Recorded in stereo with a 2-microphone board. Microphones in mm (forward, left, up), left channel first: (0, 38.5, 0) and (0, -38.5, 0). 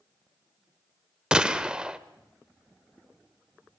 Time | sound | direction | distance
1.3 | a gunshot | 10° right (ahead or behind) | 0.8 m